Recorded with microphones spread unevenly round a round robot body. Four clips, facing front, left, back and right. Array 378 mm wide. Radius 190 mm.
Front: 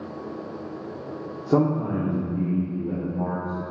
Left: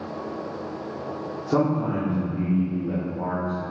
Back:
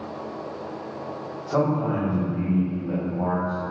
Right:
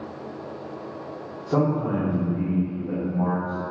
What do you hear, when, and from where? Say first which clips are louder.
1.5 s a man speaking: even, front 1 dB; 20° left, 2.5 m; by 3.6 s 5° right, 3.5 m